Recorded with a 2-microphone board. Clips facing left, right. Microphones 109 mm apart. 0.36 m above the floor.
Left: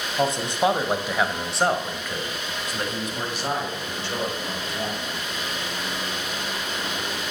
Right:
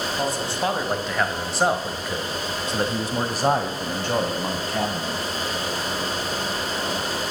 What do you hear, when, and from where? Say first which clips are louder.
0.2 s a man speaking: left 5 dB; 25° left (ahead or behind), 2.0 m; by 5.2 s 60° right (ahead or behind), 2.5 m